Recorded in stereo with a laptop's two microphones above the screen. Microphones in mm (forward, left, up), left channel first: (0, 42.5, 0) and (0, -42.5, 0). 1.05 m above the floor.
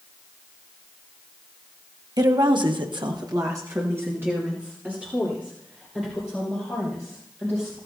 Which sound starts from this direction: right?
A woman speaking, at 2.2 s.